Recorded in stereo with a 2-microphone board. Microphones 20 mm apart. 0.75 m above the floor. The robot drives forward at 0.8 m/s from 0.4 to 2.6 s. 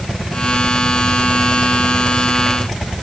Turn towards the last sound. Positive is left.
No sound to turn to.